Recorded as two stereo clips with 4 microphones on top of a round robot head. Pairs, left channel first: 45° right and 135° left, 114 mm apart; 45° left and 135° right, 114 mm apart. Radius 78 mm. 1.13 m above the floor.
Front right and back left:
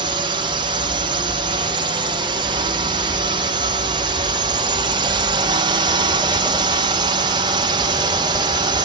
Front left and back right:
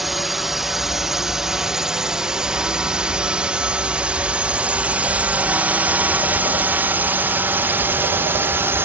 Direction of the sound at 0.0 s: 140° left.